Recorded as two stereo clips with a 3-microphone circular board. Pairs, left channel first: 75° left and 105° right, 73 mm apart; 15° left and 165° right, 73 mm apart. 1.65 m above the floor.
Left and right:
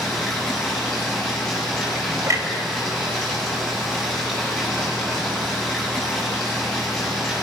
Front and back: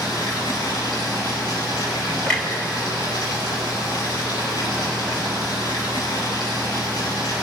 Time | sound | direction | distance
0.0 | running water | 10° right | 9 m
2.3 | a clunk | 65° right | 3.5 m